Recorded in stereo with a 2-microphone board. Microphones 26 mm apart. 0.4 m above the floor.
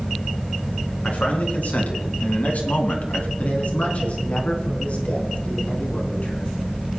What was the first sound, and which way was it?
A man speaking, 70° left (ahead or behind).